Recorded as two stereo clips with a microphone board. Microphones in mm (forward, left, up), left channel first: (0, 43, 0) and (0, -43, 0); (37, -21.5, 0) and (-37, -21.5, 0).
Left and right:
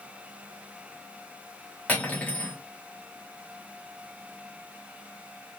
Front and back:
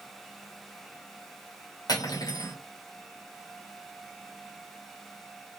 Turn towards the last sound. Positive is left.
turn(degrees=20)